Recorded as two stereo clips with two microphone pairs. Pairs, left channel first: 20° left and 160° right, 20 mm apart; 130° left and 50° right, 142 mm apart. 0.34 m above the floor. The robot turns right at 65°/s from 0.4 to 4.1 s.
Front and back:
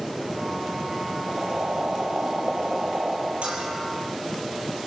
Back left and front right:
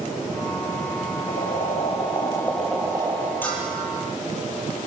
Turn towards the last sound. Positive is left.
turn(degrees=-105)